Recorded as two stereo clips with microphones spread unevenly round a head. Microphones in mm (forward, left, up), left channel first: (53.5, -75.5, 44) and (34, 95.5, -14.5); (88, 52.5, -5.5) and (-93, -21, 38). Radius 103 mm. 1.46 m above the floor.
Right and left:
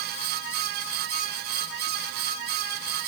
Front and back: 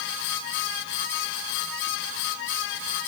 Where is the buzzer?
I don't hear a buzzer.